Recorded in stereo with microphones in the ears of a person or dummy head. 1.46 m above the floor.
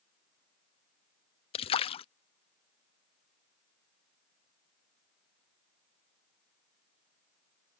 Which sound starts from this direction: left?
A splash, at 1.5 s.